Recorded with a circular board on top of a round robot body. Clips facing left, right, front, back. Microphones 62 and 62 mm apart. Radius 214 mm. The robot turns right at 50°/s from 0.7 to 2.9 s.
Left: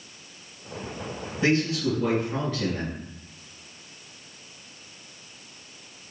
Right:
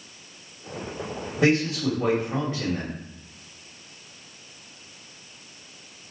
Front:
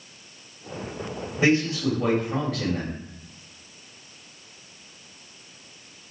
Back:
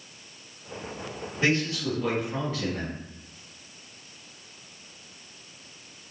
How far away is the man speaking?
About 2.5 m.